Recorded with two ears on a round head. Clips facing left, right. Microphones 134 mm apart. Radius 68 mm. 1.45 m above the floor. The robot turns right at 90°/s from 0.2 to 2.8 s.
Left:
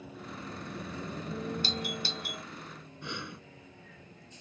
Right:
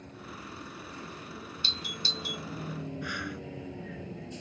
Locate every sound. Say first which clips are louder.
0.0 s a vehicle: left 2 dB; 5° left; by 4.4 s 120° right
1.6 s a doorbell: left 5 dB; 35° left (ahead or behind)
3.0 s breathing: right 4 dB; 25° left (ahead or behind)